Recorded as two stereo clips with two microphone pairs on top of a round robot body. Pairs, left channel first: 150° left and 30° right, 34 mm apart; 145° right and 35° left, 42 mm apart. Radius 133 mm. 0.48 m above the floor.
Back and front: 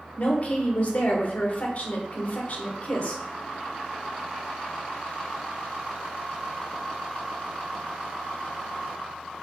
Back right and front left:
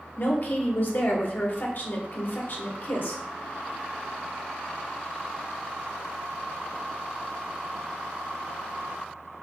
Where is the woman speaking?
175° right, 1.6 m.